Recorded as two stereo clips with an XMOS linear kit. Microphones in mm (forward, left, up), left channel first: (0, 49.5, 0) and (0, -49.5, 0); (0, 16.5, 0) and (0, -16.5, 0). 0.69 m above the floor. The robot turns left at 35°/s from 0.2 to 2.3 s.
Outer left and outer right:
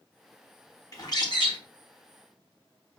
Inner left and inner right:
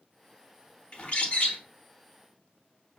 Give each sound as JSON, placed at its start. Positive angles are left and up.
{"t": 0.9, "sound": "a bird", "side_deg": 35, "distance_m": 0.8}